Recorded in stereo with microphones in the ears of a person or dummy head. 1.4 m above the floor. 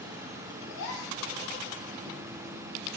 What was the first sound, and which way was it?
A gasp, 65° left (ahead or behind).